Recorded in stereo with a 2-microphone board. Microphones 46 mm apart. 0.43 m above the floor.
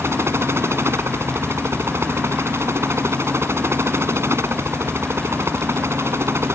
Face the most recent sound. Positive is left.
turn(degrees=-70)  # may be behind; listen again after turning